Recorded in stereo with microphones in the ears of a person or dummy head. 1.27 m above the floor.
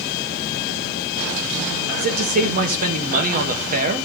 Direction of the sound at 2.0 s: 45° right (ahead or behind).